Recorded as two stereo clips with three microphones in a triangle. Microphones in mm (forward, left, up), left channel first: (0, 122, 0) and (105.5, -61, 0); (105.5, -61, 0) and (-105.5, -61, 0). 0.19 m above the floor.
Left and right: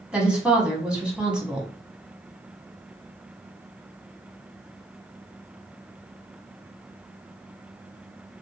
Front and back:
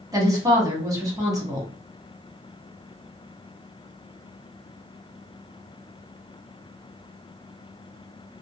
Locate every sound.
0.1 s a woman speaking: 135° right, 1.0 m